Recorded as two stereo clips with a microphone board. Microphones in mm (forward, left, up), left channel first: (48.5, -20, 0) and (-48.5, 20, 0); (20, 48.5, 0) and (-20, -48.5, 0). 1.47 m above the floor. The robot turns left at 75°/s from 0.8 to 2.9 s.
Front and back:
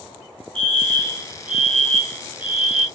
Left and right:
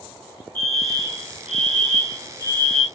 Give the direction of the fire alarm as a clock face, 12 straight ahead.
8 o'clock.